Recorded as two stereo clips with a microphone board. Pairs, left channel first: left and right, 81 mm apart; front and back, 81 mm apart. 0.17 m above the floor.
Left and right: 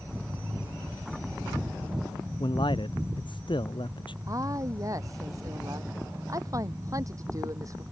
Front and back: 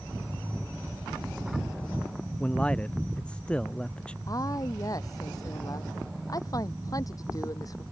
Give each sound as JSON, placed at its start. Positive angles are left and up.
{"t": 2.4, "sound": "a man speaking", "azimuth_deg": 75}
{"t": 4.3, "sound": "a woman speaking", "azimuth_deg": -45}